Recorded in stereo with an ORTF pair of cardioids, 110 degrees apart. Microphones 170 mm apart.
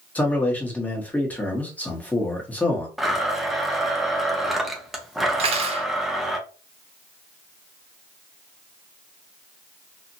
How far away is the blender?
About 0.8 m.